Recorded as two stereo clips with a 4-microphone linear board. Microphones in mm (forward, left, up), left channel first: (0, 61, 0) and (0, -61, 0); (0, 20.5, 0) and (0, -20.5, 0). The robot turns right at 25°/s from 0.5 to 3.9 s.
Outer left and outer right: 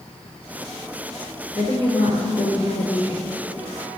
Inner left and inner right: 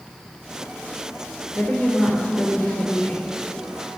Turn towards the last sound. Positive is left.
turn(degrees=115)